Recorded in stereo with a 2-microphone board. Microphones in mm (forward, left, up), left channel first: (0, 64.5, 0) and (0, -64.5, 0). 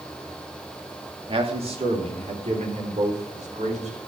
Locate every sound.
1.3 s a man speaking: 45° right (ahead or behind), 2.5 m; by 4.0 s 60° right (ahead or behind), 5.5 m